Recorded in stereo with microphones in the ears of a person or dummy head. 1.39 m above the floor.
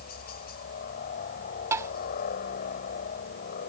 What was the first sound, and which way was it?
A helicopter, 45° left (ahead or behind).